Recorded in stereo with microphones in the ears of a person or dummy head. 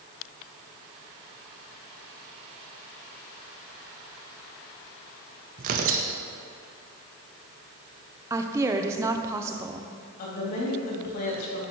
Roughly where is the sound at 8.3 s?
Centre.